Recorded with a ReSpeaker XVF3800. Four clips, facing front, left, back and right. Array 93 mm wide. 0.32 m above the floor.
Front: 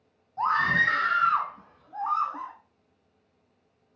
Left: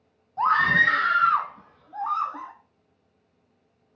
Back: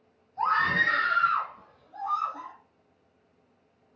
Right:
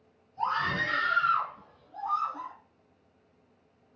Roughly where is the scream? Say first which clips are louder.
Left 9 dB, front 1 dB; left.